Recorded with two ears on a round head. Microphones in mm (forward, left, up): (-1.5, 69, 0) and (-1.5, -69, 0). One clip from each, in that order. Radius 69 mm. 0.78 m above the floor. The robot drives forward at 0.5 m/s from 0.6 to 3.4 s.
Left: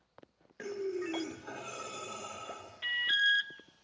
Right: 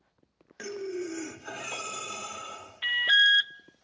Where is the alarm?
35° right (ahead or behind), 0.5 m; by 3.5 s 30° right (ahead or behind), 0.6 m.